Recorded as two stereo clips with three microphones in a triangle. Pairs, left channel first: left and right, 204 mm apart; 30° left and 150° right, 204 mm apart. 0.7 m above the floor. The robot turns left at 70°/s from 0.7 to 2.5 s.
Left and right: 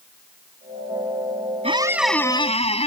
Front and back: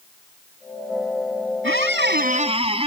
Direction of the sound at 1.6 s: 150° right.